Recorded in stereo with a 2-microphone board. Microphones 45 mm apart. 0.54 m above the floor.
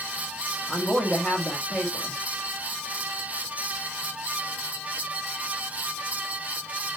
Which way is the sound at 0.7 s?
5° left (ahead or behind).